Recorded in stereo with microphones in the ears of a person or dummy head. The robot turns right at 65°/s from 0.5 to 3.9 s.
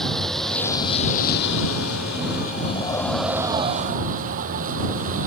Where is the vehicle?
Straight ahead; by 5.3 s 135° right.